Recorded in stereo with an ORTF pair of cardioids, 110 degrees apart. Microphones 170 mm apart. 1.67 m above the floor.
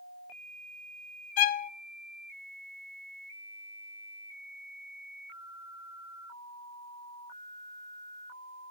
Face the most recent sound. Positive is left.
turn(degrees=55)